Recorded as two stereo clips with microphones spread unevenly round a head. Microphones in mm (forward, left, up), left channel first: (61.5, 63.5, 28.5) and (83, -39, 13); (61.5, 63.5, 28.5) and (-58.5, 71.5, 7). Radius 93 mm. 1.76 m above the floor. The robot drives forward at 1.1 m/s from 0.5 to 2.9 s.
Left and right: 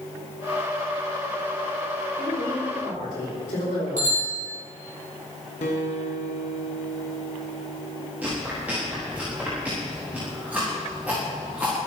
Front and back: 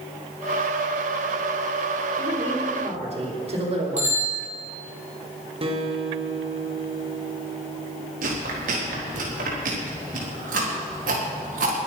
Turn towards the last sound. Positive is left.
turn(degrees=-160)